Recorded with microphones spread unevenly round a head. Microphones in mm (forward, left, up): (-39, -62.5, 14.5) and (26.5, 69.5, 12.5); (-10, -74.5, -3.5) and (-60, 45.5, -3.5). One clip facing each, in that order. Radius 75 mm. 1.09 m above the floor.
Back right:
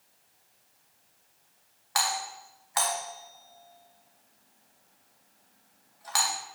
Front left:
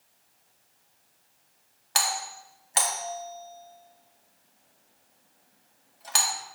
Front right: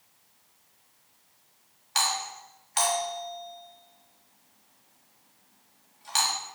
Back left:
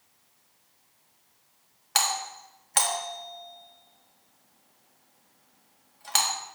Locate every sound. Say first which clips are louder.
1.9 s a doorbell: even, back left 1 dB; 120° left, 1.7 m